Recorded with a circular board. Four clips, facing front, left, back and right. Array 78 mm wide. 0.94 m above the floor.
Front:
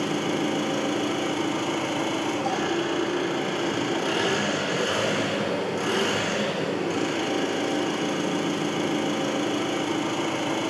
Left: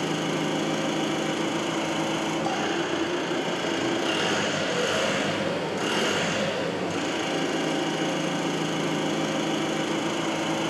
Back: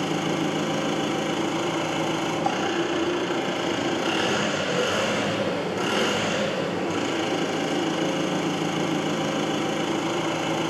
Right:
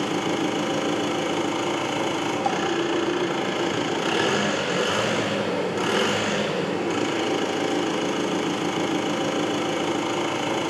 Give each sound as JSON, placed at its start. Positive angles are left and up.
{"t": 0.0, "sound": "an engine running", "azimuth_deg": -95, "distance_m": 1.5}